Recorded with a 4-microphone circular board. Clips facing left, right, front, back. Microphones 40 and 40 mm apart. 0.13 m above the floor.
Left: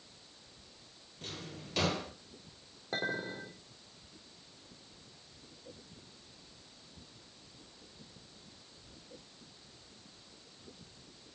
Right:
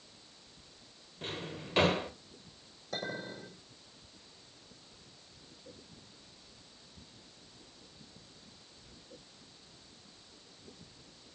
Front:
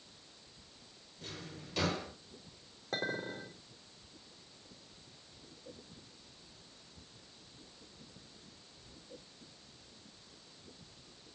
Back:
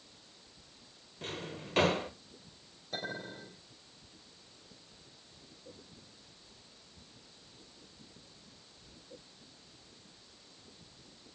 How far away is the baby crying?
No baby crying in this recording.